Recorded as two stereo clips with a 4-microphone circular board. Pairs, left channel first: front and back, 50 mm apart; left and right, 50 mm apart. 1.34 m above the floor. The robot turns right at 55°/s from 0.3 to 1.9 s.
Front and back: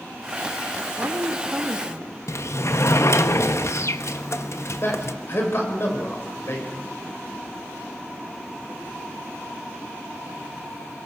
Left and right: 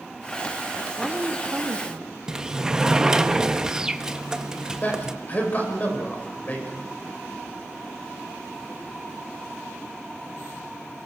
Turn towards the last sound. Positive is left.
turn(degrees=35)